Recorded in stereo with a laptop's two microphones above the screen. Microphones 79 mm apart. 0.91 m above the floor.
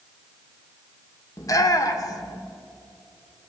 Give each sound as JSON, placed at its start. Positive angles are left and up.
{"t": 1.4, "sound": "a shout", "side_deg": 45, "distance_m": 2.0}